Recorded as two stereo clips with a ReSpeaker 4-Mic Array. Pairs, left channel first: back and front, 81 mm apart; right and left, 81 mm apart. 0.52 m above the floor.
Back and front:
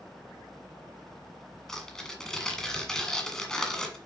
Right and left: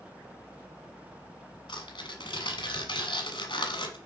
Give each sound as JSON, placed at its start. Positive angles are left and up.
{"t": 1.7, "sound": "tearing paper", "azimuth_deg": -95, "distance_m": 1.6}